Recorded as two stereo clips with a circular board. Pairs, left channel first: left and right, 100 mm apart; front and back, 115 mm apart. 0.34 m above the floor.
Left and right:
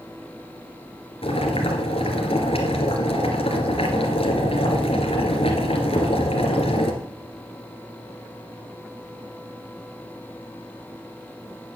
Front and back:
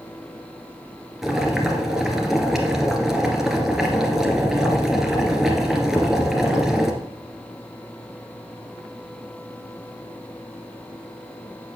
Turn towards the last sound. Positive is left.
turn(degrees=95)